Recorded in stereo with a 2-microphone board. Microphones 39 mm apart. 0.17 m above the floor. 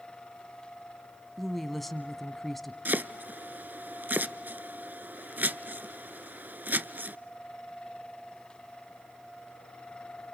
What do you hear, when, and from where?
1.4 s a woman speaking: 5° left (ahead or behind), 1.1 m
2.9 s chopping: 55° right (ahead or behind), 0.6 m